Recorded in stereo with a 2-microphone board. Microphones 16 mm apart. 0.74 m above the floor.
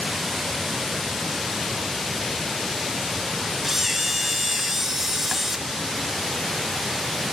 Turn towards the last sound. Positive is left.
turn(degrees=-20)  # may be behind; listen again after turning